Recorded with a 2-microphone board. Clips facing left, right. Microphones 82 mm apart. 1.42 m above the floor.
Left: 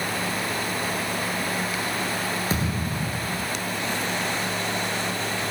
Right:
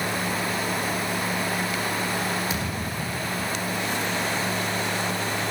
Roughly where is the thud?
Left.